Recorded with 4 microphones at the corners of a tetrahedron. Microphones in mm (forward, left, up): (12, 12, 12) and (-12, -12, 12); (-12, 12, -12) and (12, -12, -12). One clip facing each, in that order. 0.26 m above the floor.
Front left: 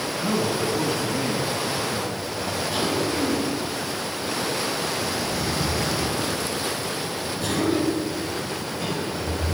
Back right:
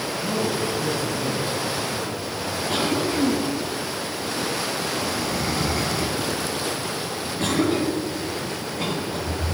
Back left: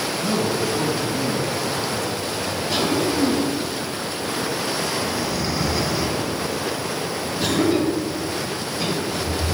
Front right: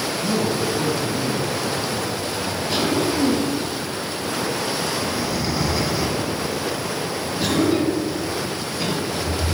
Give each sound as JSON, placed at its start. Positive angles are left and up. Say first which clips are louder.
{"t": 0.2, "sound": "a man speaking", "louder": "front left 1 dB, even", "azimuth_deg": 70, "distance_m": 2.5}
{"t": 2.7, "sound": "a cough", "louder": "back right 2 dB, even", "azimuth_deg": -135, "distance_m": 2.5}